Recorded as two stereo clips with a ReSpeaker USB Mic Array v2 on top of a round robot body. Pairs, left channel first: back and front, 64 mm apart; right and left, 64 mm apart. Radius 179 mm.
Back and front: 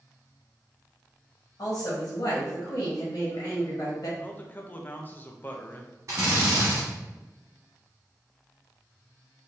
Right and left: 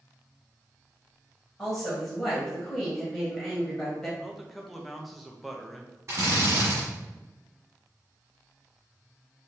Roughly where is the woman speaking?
Behind.